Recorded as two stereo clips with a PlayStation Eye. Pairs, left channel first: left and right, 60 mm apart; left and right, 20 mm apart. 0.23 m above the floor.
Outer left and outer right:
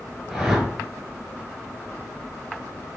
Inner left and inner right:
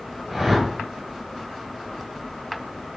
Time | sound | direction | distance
0.3 | a whoosh | 5° right (ahead or behind) | 1.1 m